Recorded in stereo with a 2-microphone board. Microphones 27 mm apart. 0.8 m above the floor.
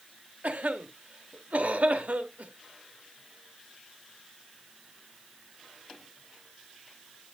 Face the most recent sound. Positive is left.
turn(degrees=-70)  # may be behind; listen again after turning